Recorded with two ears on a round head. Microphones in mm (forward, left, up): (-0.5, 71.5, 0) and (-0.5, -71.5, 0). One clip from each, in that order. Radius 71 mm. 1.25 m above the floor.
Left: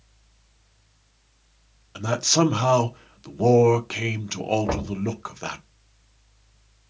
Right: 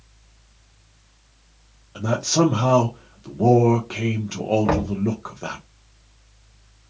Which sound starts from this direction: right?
Knocking, at 4.7 s.